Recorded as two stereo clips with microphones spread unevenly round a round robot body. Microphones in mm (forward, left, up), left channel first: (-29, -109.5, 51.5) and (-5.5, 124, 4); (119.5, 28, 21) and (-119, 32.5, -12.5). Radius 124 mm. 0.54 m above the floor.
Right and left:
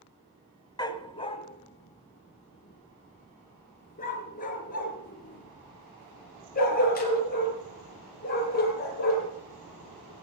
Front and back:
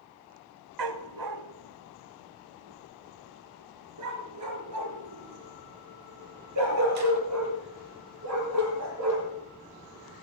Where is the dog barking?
170° right, 1.0 m; by 9.3 s 150° right, 5.5 m.